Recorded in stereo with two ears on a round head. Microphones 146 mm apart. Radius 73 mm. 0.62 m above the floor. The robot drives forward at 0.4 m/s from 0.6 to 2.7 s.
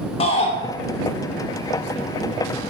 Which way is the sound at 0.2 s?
35° left (ahead or behind).